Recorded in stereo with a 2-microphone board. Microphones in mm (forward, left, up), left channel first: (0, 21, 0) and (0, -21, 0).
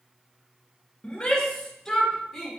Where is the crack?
No crack in this recording.